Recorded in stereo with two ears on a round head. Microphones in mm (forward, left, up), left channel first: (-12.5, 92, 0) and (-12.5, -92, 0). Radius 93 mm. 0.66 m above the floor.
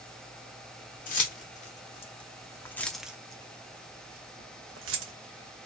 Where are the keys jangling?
45° left (ahead or behind), 1.4 m; by 5.1 s 70° right (ahead or behind), 1.2 m.